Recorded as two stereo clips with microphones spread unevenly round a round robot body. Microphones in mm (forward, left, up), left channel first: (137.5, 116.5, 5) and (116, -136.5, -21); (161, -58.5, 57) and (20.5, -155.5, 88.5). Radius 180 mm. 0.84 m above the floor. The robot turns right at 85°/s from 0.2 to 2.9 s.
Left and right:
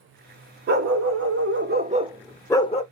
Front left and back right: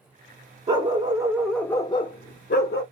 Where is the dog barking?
140° right, 0.6 m; by 2.8 s 45° left, 0.6 m.